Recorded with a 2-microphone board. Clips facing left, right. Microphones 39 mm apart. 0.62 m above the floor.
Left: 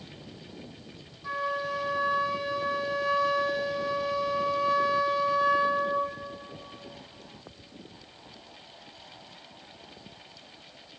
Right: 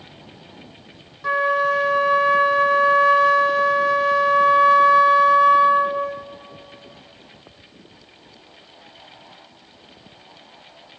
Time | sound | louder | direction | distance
1.2 | a flute | right 12 dB | 70° right (ahead or behind) | 0.6 m